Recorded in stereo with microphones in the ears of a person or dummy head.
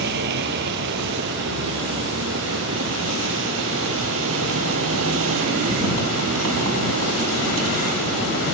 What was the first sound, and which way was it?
A vehicle, 60° right (ahead or behind).